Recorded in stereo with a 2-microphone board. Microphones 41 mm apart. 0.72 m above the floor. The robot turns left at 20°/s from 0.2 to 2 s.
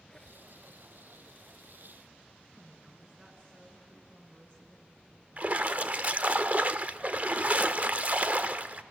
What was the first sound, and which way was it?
A squeak, 15° left (ahead or behind).